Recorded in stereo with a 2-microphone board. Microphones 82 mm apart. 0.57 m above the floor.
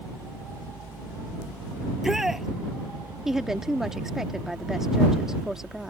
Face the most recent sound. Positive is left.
turn(degrees=-5)  # may be behind; listen again after turning